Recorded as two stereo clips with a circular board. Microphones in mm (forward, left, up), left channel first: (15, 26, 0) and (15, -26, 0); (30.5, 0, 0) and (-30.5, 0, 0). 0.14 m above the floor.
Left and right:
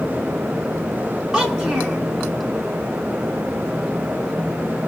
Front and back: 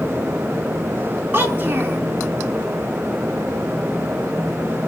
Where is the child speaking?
155° right, 0.9 m.